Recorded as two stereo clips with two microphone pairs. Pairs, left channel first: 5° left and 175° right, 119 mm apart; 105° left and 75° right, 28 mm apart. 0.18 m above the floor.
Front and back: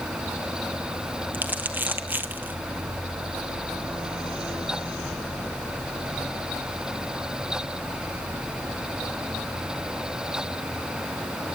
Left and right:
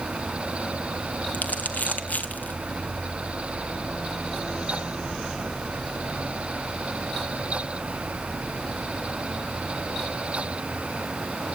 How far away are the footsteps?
I don't hear footsteps.